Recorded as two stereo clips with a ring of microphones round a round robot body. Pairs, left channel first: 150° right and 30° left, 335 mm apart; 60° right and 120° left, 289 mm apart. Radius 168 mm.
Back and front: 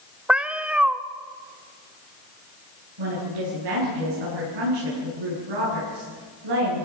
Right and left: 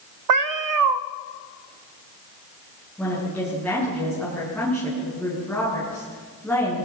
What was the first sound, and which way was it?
A cat meowing, 115° left.